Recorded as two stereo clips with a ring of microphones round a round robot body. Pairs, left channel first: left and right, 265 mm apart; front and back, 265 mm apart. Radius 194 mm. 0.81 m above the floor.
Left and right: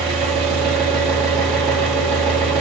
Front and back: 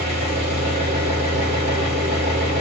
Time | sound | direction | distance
0.0 | an engine running | 115° right | 1.7 m